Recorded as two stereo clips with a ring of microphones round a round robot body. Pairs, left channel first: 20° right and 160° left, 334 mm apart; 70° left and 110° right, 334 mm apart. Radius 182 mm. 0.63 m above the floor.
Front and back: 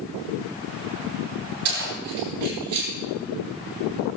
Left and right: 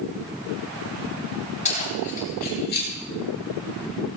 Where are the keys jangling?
135° left, 10 m; by 2.9 s 130° left, 10 m.